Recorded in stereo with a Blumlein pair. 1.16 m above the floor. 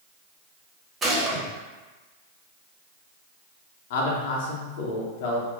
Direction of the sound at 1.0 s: 20° right.